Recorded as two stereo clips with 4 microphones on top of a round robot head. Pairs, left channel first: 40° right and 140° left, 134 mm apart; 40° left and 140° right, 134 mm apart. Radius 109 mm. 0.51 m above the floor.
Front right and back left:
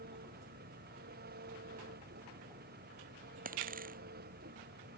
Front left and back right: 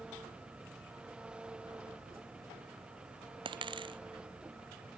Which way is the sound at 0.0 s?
140° left.